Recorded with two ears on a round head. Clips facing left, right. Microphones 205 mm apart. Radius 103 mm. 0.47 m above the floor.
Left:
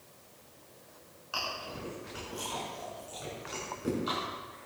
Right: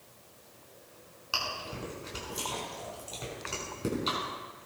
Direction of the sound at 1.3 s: 55° right (ahead or behind).